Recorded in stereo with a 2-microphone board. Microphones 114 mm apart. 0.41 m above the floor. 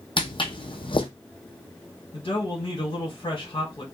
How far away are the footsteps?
About 0.7 m.